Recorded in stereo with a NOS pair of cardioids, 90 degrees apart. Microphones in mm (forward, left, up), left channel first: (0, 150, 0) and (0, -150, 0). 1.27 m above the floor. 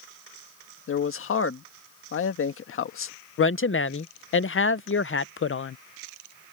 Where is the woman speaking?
45° left.